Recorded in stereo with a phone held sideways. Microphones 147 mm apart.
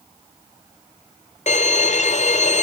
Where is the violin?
50° left (ahead or behind), 0.5 m.